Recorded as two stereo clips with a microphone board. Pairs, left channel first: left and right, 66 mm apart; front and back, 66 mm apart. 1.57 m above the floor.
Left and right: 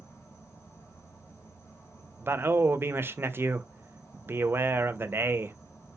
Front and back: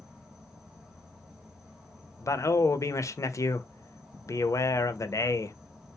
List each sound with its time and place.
0.0 s an insect: 105° left, 1.1 m
2.2 s a man speaking: 35° right, 0.6 m